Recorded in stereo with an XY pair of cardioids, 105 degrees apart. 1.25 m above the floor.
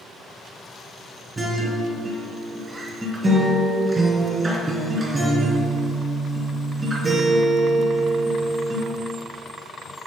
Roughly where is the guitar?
Ahead.